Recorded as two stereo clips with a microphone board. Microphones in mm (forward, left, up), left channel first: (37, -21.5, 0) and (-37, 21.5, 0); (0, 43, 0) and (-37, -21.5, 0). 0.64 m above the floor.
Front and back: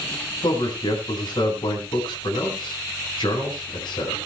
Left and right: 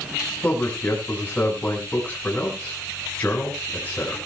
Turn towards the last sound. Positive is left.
turn(degrees=-10)